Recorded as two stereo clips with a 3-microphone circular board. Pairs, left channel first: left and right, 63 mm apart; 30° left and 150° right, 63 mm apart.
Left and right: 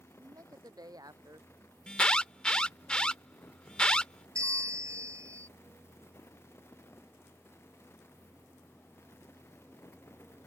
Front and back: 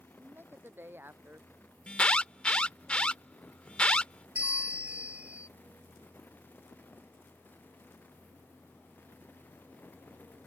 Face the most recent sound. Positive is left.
turn(degrees=-85)